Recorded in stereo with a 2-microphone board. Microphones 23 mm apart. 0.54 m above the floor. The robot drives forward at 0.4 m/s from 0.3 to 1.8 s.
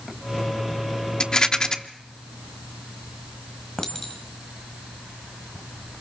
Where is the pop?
No pop in this recording.